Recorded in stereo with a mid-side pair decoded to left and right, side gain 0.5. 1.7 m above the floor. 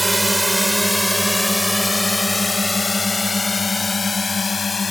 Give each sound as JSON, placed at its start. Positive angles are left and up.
{"t": 0.0, "sound": "a drone", "azimuth_deg": -5}